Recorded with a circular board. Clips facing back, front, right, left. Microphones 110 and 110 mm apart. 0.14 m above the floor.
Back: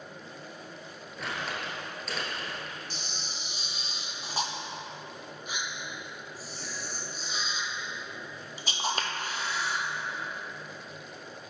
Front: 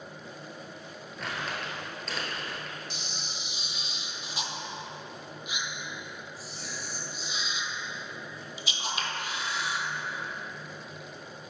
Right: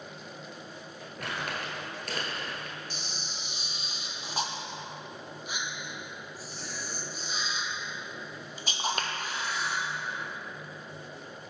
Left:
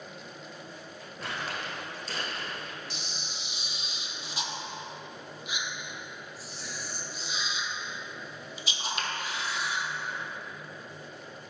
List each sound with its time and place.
1.2 s crumpling: 90° right, 1.3 m
2.9 s a camera shutter: 135° right, 0.6 m